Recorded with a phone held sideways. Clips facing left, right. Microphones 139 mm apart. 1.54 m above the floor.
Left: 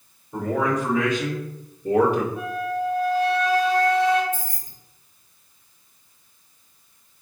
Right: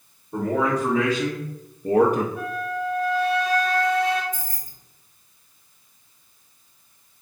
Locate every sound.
0.3 s a man speaking: 30° right (ahead or behind), 1.7 m; by 2.3 s 50° right (ahead or behind), 0.5 m
2.4 s a flute: centre (ahead or behind), 1.2 m
4.3 s keys jangling: 30° left (ahead or behind), 0.7 m